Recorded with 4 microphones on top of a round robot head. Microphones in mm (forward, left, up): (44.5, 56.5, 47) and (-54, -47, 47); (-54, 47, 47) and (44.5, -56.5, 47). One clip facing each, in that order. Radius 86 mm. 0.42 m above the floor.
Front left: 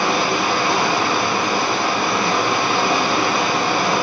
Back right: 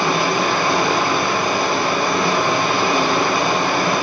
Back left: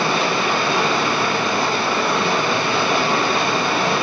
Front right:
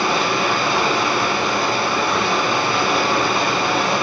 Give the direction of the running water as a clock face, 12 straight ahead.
6 o'clock.